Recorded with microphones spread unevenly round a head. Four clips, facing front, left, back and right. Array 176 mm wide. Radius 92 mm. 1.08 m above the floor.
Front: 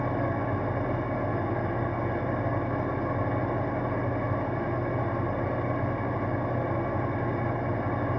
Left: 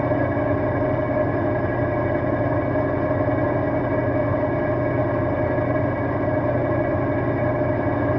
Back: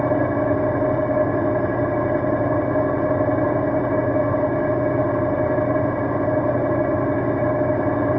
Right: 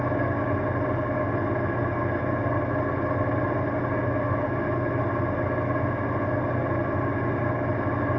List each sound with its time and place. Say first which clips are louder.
0.0 s an engine running: left 5 dB, back 10 dB; 160° left, 0.9 m